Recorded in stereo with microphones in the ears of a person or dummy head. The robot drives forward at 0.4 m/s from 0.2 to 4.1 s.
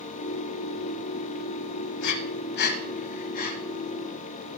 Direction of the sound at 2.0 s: 70° left (ahead or behind).